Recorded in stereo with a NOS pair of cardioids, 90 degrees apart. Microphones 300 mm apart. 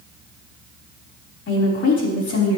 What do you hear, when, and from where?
1.5 s a woman speaking: 50° left, 5.5 m